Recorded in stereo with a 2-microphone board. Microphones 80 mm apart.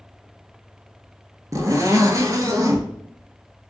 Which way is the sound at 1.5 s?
45° right (ahead or behind).